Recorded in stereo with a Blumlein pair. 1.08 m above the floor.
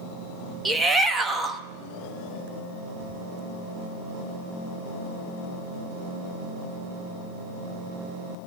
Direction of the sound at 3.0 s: 65° right.